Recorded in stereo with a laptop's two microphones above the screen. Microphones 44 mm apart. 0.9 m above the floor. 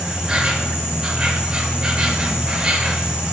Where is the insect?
20° right (ahead or behind), 1.4 m.